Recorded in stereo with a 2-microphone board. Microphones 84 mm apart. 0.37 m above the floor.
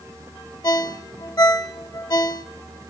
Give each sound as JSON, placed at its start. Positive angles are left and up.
{"t": 0.6, "sound": "a ringtone", "side_deg": 45, "distance_m": 0.8}